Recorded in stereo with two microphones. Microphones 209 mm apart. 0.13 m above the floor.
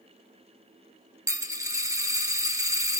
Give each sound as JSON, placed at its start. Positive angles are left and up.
{"t": 1.3, "sound": "a dropped coin", "side_deg": -15, "distance_m": 0.5}